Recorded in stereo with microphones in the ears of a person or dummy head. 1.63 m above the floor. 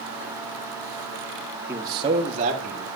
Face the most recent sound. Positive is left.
turn(degrees=-45)  # may be behind; listen again after turning